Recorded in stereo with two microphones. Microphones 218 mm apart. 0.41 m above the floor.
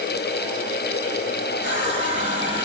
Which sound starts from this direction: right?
A running tap, at 1.6 s.